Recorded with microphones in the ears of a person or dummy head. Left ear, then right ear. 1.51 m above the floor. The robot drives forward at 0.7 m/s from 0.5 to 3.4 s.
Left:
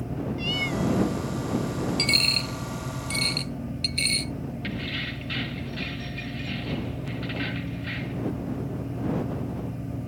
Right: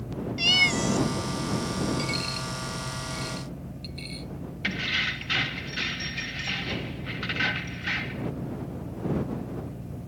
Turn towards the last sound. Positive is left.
turn(degrees=-35)  # may be behind; listen again after turning